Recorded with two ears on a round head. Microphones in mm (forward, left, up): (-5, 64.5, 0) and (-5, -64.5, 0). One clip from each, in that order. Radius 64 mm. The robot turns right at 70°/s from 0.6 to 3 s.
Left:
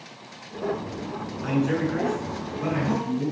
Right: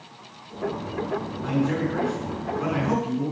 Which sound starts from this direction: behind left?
A man speaking, at 1.4 s.